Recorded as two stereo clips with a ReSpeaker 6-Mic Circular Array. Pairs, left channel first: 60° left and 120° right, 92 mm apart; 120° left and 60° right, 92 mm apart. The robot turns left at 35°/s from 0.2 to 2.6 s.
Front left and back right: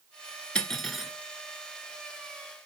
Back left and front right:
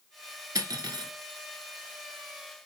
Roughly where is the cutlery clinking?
Ahead.